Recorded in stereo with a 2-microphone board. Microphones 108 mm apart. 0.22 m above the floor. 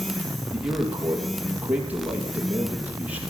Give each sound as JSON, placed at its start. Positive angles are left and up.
{"t": 0.5, "sound": "a man speaking", "side_deg": -15, "distance_m": 5.5}